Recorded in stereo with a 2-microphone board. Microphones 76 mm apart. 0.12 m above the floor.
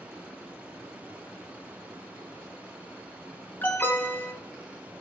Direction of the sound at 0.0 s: 20° right (ahead or behind).